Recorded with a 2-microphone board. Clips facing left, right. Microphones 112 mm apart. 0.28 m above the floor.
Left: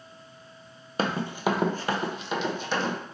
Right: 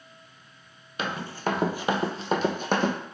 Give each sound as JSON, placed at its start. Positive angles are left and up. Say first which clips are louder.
{"t": 1.0, "sound": "running footsteps", "louder": "left 3 dB", "side_deg": 40, "distance_m": 0.6}